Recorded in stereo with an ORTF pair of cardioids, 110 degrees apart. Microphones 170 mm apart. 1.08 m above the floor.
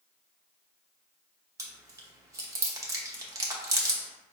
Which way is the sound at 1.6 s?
20° right.